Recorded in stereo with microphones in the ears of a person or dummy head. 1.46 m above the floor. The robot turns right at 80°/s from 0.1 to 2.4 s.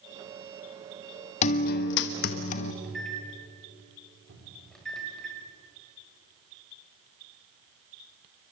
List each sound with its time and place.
1.4 s a guitar: 45° left, 1.1 m; by 2.7 s 125° left, 1.1 m
2.8 s a microwave: 5° left (ahead or behind), 6 m
4.3 s a cupboard door: 75° right (ahead or behind), 5 m